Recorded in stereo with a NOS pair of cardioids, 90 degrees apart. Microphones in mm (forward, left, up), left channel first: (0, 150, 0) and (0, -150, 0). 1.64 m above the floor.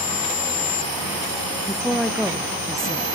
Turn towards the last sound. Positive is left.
turn(degrees=0)